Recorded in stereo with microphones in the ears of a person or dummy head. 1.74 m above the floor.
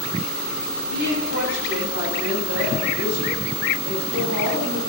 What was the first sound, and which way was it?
A woman speaking, 60° right (ahead or behind).